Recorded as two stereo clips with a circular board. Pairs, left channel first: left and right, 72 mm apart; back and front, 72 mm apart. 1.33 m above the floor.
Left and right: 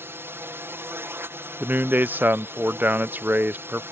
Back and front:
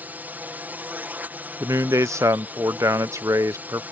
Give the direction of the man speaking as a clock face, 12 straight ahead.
1 o'clock.